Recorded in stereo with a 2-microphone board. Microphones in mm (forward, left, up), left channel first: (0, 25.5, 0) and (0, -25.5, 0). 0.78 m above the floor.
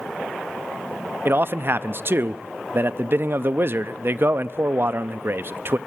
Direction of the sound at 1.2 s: 50° right (ahead or behind).